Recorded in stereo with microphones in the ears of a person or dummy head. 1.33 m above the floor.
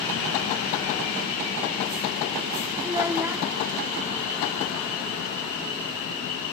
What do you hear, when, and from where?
2.8 s a child speaking: 15° right (ahead or behind), 0.6 m